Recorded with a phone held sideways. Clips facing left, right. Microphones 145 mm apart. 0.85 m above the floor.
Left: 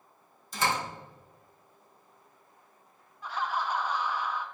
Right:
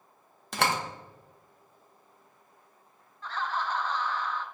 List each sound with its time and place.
0.5 s a door slam: 65° right (ahead or behind), 0.8 m
3.2 s laughter: 10° left (ahead or behind), 0.7 m